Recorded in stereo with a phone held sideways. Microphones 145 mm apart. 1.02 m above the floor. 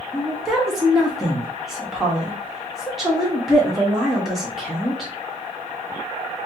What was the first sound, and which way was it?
A woman speaking, 5° right (ahead or behind).